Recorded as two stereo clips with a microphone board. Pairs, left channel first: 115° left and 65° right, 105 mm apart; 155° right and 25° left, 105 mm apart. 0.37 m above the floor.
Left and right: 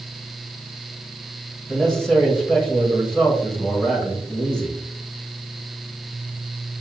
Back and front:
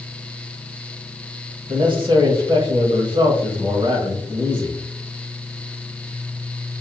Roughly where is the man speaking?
Ahead left.